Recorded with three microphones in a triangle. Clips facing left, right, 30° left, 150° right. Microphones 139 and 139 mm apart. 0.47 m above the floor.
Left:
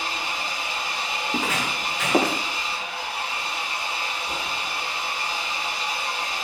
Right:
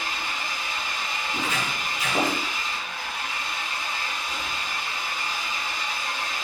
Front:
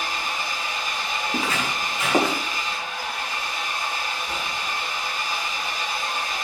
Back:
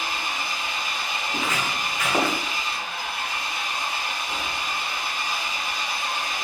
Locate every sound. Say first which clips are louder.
0.0 s an engine running: left 2 dB, front 1 dB; 80° left, 6 m
1.3 s footsteps: left 3 dB, front 1 dB; 90° left, 4.5 m; by 2.4 s 100° left, 4.5 m